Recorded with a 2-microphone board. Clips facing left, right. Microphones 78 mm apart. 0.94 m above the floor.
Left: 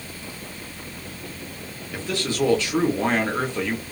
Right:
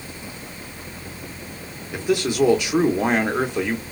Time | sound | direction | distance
1.9 | a man speaking | 15° right (ahead or behind) | 0.8 m